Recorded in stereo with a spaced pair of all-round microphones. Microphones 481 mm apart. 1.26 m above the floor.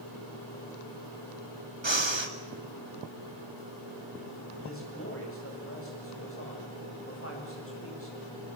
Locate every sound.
1.8 s breathing: 65° right (ahead or behind), 1.9 m
4.6 s a man speaking: 25° left (ahead or behind), 8.5 m